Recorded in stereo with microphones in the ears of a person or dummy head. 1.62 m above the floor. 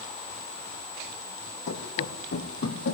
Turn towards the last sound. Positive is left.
turn(degrees=60)  # may be behind; listen again after turning